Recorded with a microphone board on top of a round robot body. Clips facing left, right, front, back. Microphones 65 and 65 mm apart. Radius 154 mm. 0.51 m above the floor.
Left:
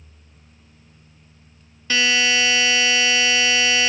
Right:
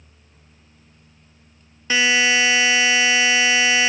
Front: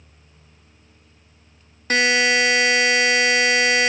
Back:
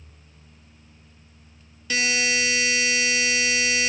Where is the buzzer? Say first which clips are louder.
Right 2 dB, front 7 dB; 25° right, 0.8 m.